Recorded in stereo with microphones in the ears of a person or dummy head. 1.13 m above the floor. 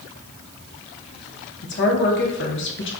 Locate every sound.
1.6 s a woman speaking: 55° left (ahead or behind), 0.7 m